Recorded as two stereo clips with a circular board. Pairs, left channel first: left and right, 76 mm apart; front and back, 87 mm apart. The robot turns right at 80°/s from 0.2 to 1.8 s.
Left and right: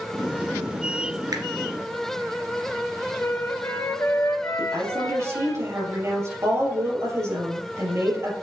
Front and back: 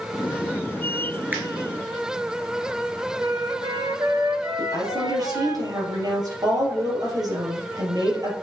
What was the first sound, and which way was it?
A finger snap, 110° right.